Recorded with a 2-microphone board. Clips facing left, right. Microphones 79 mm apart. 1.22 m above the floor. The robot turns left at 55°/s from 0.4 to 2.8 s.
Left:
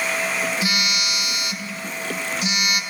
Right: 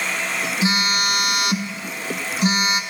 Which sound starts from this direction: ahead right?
A phone buzzing, at 0.6 s.